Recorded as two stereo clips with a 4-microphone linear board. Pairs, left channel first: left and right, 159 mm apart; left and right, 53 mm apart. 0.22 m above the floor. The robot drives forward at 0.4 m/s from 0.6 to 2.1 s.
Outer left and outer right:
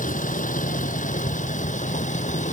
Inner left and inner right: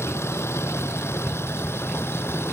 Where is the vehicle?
55° left (ahead or behind); by 2.5 s 50° left (ahead or behind).